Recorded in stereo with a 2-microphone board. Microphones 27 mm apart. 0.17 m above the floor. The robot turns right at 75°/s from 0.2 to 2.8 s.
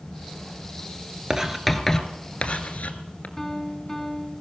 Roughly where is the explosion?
I don't hear an explosion.